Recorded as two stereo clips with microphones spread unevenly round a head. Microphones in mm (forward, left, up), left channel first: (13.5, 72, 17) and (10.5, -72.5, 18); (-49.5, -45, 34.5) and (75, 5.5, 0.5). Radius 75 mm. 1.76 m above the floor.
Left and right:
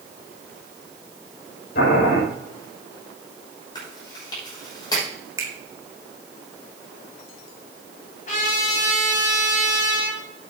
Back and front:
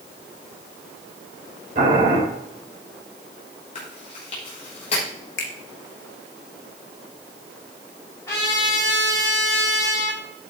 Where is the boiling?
70° left, 5.5 m.